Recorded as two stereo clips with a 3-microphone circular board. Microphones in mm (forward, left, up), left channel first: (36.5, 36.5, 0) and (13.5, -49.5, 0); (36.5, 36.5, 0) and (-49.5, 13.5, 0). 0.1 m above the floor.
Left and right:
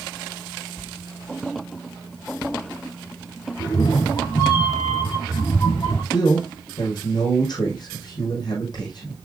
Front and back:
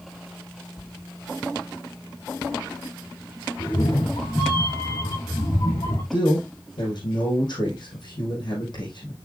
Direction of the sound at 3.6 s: 30° left.